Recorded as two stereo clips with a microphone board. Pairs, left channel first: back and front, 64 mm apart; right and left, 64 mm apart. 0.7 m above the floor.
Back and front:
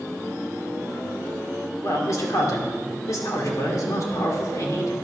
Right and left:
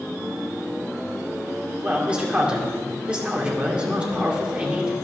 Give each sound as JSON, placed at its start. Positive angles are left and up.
{"t": 1.8, "sound": "a man speaking", "azimuth_deg": 160, "distance_m": 2.0}